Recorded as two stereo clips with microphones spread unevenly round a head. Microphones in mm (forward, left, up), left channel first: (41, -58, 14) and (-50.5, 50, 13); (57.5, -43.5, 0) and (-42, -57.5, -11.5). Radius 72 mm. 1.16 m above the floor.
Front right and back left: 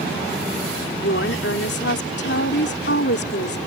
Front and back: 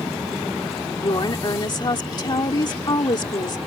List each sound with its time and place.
1.0 s a woman speaking: 40° right